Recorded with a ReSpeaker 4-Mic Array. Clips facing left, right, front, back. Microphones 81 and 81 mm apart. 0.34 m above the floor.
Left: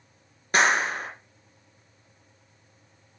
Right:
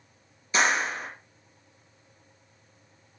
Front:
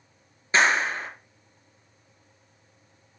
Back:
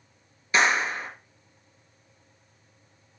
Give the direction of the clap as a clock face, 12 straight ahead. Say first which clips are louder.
Left 3 dB, front 1 dB; 10 o'clock.